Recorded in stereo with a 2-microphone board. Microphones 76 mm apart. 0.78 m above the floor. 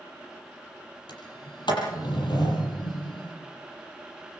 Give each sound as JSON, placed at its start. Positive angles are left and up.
{"t": 1.1, "sound": "a sliding door", "side_deg": 70, "distance_m": 7.0}